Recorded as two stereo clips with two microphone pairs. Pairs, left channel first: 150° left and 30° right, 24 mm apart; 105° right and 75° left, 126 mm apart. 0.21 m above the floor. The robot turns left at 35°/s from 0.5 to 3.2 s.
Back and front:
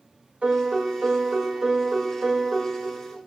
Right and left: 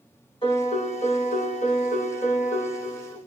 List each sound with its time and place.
0.4 s a piano: 60° right, 3 m; by 3.2 s 155° right, 3 m